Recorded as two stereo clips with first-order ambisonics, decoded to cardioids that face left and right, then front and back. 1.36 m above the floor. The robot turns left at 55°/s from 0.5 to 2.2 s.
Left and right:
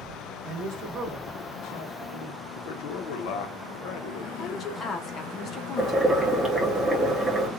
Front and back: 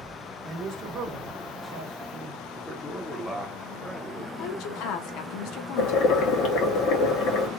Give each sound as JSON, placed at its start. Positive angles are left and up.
{"t": 0.4, "sound": "a man speaking", "azimuth_deg": -125, "distance_m": 1.0}
{"t": 2.6, "sound": "a man speaking", "azimuth_deg": 90, "distance_m": 0.7}
{"t": 4.4, "sound": "a woman speaking", "azimuth_deg": 30, "distance_m": 0.5}
{"t": 5.8, "sound": "boiling", "azimuth_deg": -10, "distance_m": 0.7}